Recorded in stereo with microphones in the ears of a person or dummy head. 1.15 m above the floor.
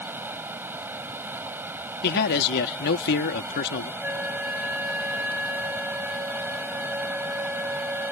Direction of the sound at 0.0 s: 5° right (ahead or behind).